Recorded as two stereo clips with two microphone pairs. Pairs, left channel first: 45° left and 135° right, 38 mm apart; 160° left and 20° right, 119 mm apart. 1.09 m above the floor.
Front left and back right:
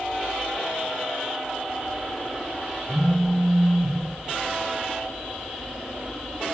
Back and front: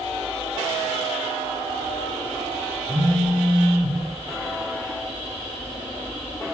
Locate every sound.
2.9 s a phone buzzing: 60° right, 5 m